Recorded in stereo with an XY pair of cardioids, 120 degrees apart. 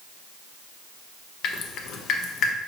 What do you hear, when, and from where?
1.4 s dripping: 70° left, 0.6 m